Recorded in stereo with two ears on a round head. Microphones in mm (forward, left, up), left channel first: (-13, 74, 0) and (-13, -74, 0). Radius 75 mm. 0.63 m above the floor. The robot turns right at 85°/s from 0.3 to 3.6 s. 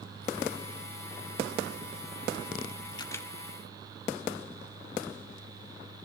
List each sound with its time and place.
3.0 s a camera shutter: 30° left (ahead or behind), 1.7 m; by 3.3 s 5° left (ahead or behind), 1.7 m